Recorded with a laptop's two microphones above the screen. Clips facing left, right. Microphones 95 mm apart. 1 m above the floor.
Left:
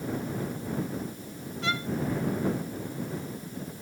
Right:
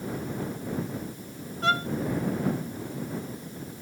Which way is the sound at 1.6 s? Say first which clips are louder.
Right 6 dB; 45° right (ahead or behind).